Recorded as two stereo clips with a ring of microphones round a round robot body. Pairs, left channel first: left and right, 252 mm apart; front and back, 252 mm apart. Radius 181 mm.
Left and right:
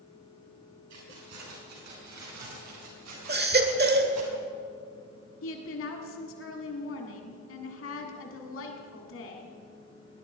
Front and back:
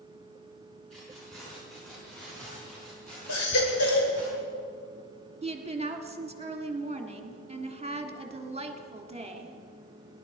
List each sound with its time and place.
0.9 s keys jangling: 90° right, 6.5 m; by 4.3 s 85° right, 4 m
3.3 s a baby crying: 40° right, 1.6 m
5.4 s a woman speaking: 115° left, 1.6 m